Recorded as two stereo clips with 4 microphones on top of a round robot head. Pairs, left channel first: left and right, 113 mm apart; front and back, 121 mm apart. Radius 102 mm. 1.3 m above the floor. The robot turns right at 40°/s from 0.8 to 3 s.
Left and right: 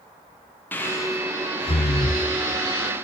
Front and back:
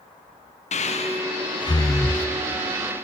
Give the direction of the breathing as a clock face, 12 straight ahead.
12 o'clock.